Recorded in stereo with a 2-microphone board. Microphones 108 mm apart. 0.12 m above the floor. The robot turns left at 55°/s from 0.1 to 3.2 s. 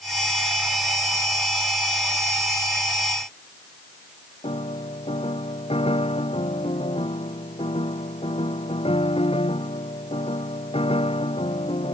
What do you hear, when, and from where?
4.4 s a piano: 65° left (ahead or behind)